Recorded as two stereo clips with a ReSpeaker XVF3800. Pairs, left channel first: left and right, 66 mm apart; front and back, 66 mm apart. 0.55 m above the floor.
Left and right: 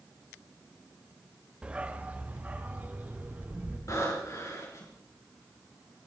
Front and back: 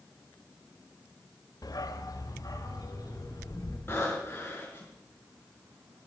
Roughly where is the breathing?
Ahead left.